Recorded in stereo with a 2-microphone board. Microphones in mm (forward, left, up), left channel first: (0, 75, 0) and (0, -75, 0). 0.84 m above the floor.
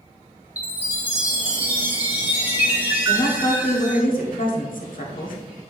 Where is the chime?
10° right (ahead or behind), 1.9 m.